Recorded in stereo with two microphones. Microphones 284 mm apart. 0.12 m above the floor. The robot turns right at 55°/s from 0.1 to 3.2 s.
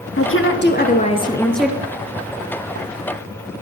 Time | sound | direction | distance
0.2 | a woman speaking | 100° left | 1.5 m